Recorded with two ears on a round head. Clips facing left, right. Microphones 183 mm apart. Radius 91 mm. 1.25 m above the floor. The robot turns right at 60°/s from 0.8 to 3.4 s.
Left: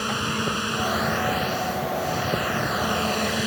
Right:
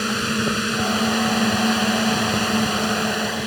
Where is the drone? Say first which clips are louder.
Right 5 dB; 155° right; by 3.5 s 5° left.